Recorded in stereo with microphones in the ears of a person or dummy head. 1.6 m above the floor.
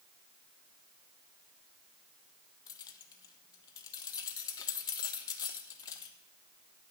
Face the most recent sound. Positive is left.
turn(degrees=25)  # may be behind; listen again after turning